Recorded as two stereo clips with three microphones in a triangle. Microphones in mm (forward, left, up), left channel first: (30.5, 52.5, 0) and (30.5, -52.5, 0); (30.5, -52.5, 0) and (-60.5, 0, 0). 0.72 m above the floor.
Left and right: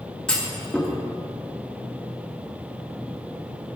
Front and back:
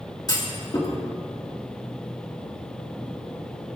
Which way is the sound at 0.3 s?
10° left.